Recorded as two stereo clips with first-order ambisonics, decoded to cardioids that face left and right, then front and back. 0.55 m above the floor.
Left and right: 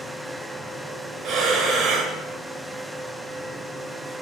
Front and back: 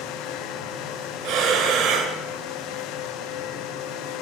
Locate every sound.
1.2 s breathing: 140° right, 2 m